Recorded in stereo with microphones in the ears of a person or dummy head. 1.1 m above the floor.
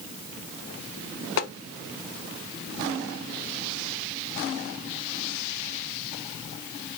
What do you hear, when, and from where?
1.4 s tapping: 70° left (ahead or behind), 0.6 m